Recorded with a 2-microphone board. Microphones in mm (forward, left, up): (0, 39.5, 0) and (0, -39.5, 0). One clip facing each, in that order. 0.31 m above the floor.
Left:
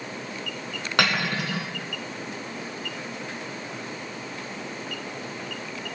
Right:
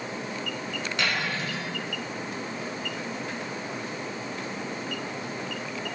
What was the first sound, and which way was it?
Cutlery clinking, 70° left (ahead or behind).